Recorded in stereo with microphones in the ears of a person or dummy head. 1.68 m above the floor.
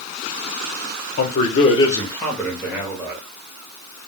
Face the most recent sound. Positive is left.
turn(degrees=-15)  # may be behind; listen again after turning